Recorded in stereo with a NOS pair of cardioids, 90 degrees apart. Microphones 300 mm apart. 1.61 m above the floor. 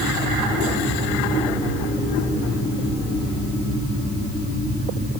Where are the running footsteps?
I don't hear running footsteps.